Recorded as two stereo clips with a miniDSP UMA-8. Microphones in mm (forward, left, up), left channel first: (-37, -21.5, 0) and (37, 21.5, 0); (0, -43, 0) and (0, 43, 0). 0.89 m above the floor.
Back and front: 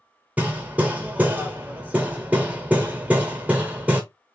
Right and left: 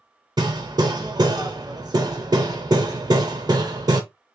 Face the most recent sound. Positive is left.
turn(degrees=100)